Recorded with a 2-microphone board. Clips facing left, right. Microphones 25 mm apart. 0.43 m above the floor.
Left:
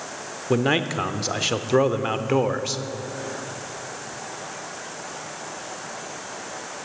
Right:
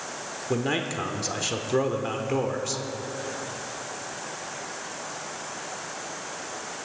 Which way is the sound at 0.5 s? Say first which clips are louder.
Left 6 dB; 25° left (ahead or behind).